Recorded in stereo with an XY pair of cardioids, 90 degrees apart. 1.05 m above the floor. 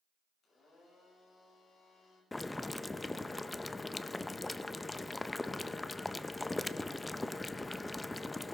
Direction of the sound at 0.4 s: 65° left.